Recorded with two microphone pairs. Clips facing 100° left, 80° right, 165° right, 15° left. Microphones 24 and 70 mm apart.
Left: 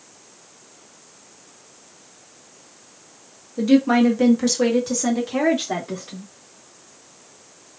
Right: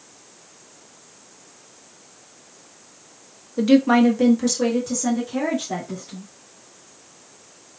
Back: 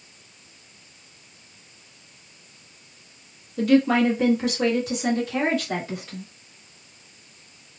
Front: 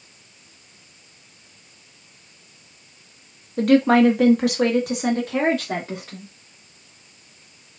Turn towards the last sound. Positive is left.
turn(degrees=70)